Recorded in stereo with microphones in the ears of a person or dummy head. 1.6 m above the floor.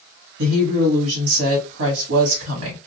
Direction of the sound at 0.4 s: 65° right (ahead or behind).